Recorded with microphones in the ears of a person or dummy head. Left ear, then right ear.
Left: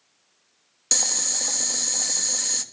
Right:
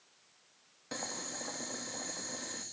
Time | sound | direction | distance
0.9 | boiling | 75° left (ahead or behind) | 1.9 m